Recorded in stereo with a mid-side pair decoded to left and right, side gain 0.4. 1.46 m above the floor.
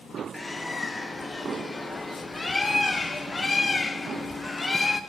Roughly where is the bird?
Ahead.